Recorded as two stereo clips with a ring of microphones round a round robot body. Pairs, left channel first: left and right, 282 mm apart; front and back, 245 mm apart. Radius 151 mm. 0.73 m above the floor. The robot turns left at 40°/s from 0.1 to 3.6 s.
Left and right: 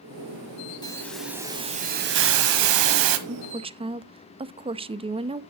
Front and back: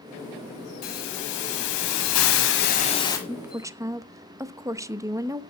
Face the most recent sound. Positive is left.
turn(degrees=-125)